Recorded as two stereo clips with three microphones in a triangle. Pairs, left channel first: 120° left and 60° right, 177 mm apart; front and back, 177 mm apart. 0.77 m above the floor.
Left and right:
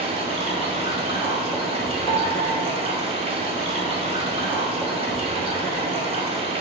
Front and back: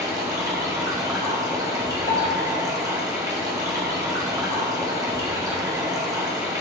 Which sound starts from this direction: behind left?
A piano, at 2.1 s.